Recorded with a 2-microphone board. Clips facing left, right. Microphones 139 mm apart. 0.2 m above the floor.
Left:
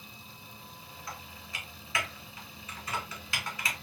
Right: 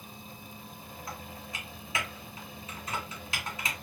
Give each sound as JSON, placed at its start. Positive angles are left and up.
{"t": 1.1, "sound": "typing on a keyboard", "side_deg": -20, "distance_m": 1.8}